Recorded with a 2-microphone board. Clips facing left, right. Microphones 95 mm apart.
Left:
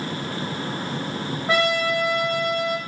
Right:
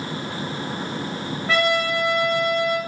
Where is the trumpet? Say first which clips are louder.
Even; 15° left (ahead or behind), 1.0 m.